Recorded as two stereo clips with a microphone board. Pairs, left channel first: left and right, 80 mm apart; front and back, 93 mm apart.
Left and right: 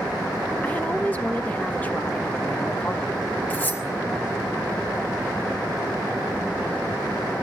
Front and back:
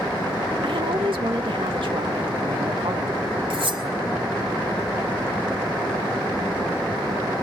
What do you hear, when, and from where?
0.6 s a woman speaking: 160° left, 2 m
3.5 s cutlery clinking: 160° left, 3.5 m